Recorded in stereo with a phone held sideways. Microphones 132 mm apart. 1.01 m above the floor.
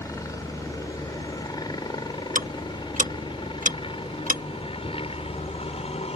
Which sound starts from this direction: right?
Ticking, at 2.4 s.